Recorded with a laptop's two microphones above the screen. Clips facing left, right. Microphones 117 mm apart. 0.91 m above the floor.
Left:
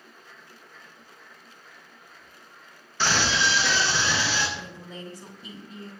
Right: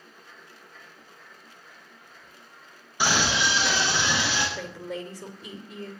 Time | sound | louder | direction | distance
3.0 | a scream | even | 15° right (ahead or behind) | 1.1 m
4.6 | a woman speaking | right 6 dB | 80° right | 2.5 m